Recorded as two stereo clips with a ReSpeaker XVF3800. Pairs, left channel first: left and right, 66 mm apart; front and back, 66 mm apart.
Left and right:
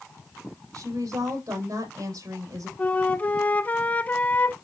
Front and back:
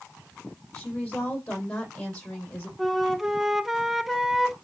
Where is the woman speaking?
75° right, 6 m.